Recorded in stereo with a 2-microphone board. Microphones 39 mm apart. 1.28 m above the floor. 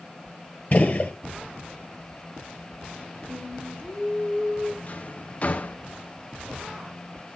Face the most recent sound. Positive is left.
turn(degrees=40)  # may be behind; listen again after turning